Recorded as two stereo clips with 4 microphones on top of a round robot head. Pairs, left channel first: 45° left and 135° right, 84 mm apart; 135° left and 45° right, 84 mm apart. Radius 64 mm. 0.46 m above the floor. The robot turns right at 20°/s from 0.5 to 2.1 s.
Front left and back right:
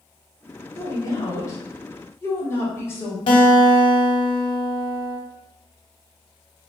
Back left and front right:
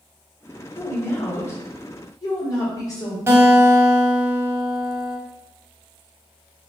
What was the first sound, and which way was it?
A woman speaking, 75° left.